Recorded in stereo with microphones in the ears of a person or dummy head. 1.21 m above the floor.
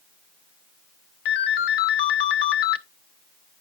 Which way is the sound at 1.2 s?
60° left (ahead or behind).